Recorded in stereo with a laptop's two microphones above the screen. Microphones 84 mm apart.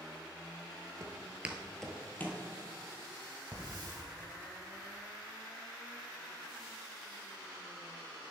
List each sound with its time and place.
1.0 s footsteps: 35° right (ahead or behind), 1.3 m; by 2.4 s 25° left (ahead or behind), 1.9 m
3.5 s a hiss: 45° right (ahead or behind), 1.8 m